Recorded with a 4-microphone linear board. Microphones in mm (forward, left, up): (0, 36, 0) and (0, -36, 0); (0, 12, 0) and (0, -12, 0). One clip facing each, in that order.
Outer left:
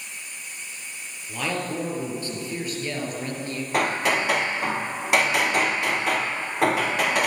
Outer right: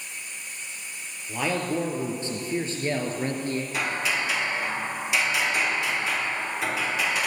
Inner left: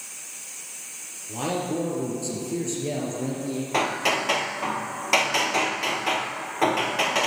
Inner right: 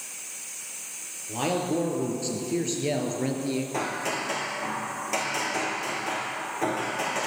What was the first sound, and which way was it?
A man speaking, 15° right (ahead or behind).